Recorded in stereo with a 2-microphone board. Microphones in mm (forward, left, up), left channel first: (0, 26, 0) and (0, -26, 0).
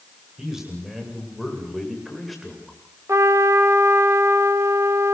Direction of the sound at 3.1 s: 70° right (ahead or behind).